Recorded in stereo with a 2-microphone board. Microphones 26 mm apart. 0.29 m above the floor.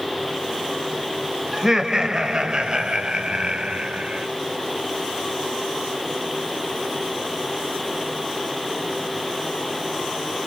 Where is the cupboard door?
I don't hear a cupboard door.